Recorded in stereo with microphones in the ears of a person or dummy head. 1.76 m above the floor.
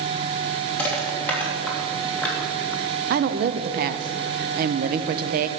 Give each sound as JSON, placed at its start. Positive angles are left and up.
{"t": 0.8, "sound": "crushing", "side_deg": 10, "distance_m": 3.0}
{"t": 3.1, "sound": "a woman speaking", "side_deg": -50, "distance_m": 0.7}